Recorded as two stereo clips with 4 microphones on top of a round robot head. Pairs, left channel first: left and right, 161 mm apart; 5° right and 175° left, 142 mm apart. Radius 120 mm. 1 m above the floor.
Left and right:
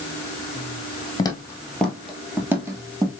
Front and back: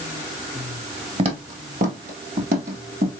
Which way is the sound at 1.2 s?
145° left.